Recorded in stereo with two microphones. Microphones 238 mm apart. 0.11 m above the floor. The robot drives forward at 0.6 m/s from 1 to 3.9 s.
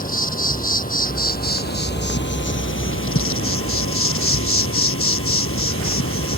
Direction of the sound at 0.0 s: 35° left (ahead or behind).